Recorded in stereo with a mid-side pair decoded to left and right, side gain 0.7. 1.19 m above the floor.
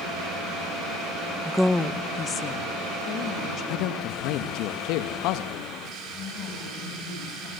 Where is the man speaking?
65° left, 1.5 m.